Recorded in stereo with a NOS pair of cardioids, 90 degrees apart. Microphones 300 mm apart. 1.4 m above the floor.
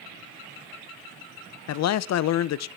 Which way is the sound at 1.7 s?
60° left.